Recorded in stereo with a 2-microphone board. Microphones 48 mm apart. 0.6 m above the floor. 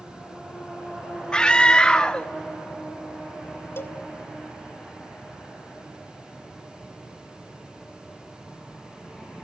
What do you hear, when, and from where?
1.3 s a scream: 15° left (ahead or behind), 0.6 m
3.8 s a cowbell: 55° left (ahead or behind), 1.5 m